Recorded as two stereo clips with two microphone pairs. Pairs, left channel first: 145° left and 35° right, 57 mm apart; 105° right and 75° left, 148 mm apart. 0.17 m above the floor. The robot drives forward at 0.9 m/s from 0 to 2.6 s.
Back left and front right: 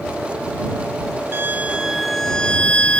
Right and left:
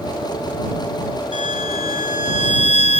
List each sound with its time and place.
1.3 s a violin: 75° right; by 3.0 s 145° right